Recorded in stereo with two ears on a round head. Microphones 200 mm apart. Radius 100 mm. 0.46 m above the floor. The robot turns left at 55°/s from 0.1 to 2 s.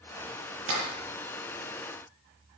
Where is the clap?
70° right (ahead or behind), 9.5 m; by 0.8 s 60° right (ahead or behind), 9.5 m.